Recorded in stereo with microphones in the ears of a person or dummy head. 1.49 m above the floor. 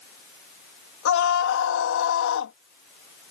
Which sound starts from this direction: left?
A scream, at 1.1 s.